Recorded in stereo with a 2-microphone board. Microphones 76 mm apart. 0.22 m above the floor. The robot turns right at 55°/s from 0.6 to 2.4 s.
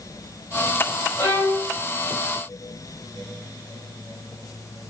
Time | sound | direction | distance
1.2 | a violin | 25° left (ahead or behind) | 3 m